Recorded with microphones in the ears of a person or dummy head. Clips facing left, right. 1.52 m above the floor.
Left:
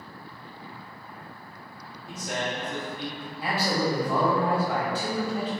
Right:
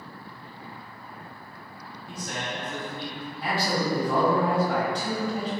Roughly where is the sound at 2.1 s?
Centre.